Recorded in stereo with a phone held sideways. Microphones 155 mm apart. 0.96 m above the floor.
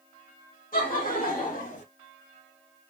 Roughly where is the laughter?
Left.